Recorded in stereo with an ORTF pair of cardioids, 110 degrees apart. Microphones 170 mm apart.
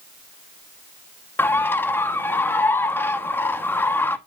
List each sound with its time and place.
1.4 s a bird: 15° left, 0.9 m